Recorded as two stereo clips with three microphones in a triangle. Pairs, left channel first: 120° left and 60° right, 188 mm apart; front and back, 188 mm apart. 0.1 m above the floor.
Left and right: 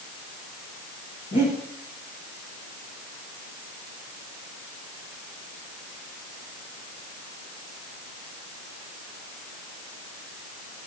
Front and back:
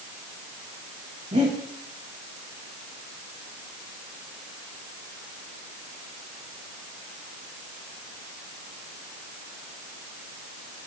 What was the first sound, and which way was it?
Breathing, 130° left.